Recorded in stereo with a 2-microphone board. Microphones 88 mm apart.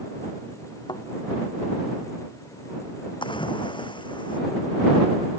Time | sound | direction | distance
0.9 | a thud | 60° left (ahead or behind) | ?
3.2 | a splash | 75° left (ahead or behind) | ?